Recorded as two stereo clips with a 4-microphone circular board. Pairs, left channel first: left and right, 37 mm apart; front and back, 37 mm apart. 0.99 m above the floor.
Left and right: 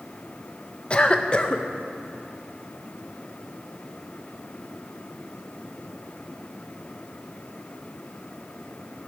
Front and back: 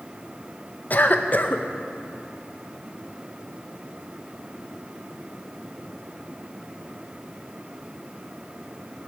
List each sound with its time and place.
0.9 s a cough: 30° left, 0.7 m